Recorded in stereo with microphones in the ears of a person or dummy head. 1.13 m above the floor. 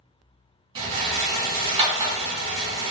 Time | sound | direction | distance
0.8 | a rattle | 20° right (ahead or behind) | 1.3 m